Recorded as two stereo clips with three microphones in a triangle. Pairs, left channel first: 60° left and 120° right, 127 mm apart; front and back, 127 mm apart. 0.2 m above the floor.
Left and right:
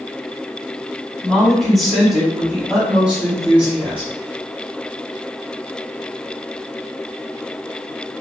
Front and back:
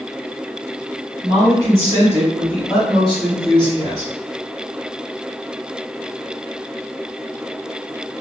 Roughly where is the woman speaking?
Behind left.